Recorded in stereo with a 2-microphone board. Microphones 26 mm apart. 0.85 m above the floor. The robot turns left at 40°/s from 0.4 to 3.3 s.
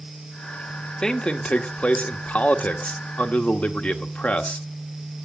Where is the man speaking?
160° left, 1.7 m; by 4.7 s 70° left, 1.7 m.